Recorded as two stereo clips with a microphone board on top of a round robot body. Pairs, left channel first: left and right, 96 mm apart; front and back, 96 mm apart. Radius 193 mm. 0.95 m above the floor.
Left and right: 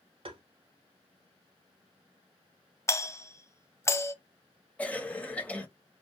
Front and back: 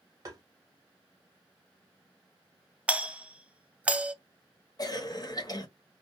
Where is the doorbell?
115° left, 0.7 m.